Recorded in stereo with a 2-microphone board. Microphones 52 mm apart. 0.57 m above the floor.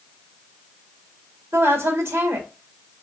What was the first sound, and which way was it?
A woman speaking, 65° right (ahead or behind).